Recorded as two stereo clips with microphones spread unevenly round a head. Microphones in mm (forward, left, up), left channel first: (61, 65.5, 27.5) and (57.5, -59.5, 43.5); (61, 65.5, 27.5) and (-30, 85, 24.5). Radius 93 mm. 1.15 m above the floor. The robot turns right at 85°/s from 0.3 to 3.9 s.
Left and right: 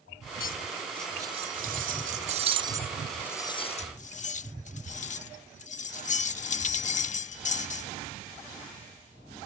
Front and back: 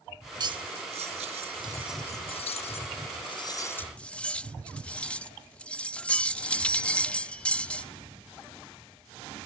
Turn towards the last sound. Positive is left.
turn(degrees=65)